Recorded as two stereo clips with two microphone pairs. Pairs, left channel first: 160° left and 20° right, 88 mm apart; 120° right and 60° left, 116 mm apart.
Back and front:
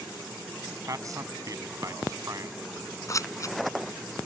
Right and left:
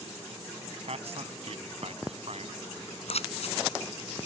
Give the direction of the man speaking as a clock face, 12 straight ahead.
11 o'clock.